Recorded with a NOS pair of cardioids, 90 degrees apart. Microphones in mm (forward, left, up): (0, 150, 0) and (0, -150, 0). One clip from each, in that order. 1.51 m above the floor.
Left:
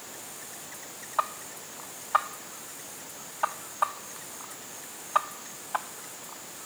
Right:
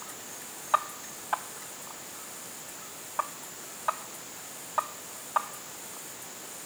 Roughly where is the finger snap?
I don't hear a finger snap.